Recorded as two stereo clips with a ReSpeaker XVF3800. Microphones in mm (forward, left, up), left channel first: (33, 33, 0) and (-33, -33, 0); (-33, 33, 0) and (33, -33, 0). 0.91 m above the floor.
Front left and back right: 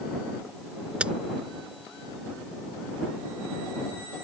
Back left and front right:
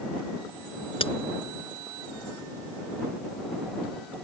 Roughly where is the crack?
Behind left.